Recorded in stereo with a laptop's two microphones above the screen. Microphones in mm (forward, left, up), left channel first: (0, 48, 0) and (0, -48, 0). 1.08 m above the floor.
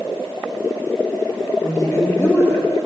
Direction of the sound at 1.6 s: 25° left (ahead or behind).